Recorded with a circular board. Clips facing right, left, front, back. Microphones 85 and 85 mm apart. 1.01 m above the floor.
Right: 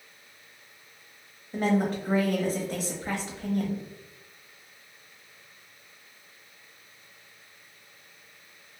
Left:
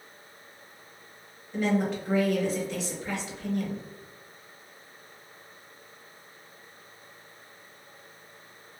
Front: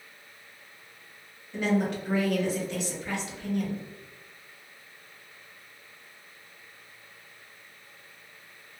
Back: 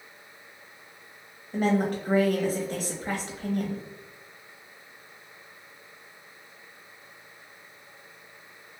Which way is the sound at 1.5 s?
135° right.